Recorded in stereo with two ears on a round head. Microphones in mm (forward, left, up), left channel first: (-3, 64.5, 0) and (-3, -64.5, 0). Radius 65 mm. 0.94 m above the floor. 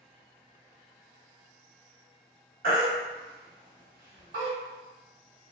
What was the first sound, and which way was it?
A baby crying, 70° right (ahead or behind).